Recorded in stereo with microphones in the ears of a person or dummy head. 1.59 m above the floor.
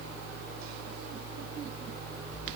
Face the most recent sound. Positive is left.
No sound to turn to.